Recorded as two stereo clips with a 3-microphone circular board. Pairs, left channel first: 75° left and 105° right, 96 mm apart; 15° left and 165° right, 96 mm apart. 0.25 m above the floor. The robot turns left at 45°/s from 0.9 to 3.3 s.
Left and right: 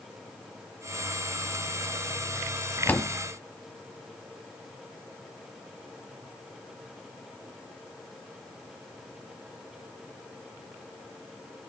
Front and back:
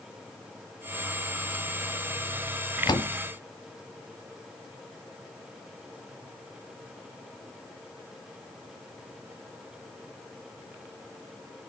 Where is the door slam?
10° left, 1.3 m; by 3.1 s straight ahead, 1.3 m.